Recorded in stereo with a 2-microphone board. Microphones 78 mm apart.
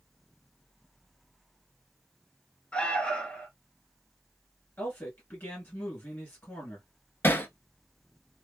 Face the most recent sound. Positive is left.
turn(degrees=25)  # may be behind; listen again after turning